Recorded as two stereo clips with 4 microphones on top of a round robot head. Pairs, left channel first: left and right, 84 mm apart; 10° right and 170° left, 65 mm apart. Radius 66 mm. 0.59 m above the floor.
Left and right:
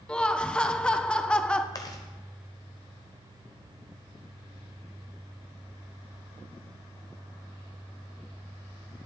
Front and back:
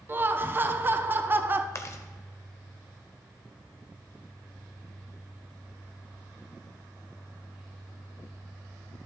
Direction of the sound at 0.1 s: 160° left.